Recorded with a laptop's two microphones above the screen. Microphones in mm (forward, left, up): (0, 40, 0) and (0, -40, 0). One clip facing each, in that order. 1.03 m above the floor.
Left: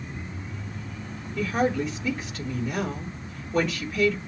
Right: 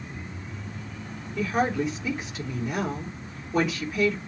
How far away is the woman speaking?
About 3.5 m.